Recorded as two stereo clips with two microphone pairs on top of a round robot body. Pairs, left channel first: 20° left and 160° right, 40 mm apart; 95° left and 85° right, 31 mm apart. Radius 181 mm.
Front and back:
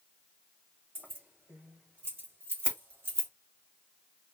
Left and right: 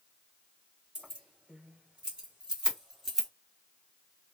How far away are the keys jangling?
About 2.5 m.